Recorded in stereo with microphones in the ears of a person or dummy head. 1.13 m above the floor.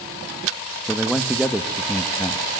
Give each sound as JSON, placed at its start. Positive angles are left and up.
{"t": 0.8, "sound": "a man speaking", "side_deg": -5, "distance_m": 1.3}